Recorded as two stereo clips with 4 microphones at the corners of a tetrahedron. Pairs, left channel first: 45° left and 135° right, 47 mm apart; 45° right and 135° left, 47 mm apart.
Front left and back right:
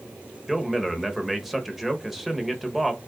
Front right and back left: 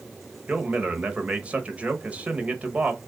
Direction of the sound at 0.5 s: 145° left.